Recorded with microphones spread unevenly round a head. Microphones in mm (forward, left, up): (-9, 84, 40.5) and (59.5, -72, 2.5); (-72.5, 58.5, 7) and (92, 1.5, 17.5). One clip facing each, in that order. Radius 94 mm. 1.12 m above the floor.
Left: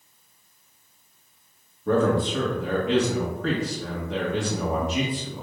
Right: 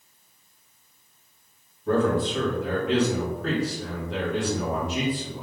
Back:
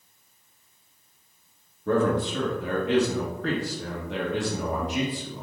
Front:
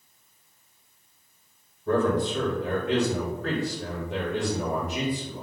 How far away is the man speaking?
About 1.5 m.